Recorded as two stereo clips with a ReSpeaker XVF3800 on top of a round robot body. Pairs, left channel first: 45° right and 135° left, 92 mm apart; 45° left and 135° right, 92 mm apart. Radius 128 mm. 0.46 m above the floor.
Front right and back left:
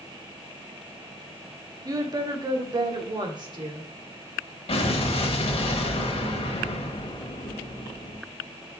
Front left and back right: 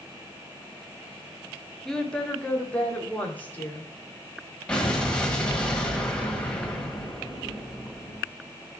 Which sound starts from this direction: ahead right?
An explosion, at 4.7 s.